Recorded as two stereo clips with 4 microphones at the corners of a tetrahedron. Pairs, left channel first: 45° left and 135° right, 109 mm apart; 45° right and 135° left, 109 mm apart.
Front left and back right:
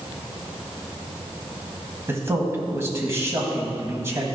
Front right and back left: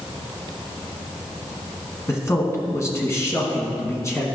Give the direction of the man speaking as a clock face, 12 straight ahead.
3 o'clock.